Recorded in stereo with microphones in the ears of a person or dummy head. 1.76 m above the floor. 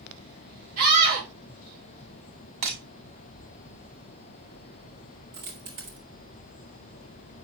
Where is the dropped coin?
40° right (ahead or behind), 2 m.